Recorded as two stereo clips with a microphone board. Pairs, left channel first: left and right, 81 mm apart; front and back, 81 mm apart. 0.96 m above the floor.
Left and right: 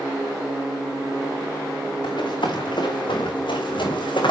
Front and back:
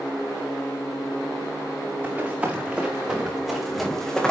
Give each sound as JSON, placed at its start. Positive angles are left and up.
{"t": 2.0, "sound": "running footsteps", "azimuth_deg": 110, "distance_m": 5.0}